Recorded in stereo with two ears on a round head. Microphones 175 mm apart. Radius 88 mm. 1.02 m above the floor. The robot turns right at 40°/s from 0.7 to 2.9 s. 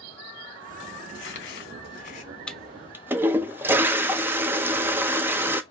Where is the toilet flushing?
5° left (ahead or behind), 0.5 m; by 5.6 s 10° right (ahead or behind), 0.5 m.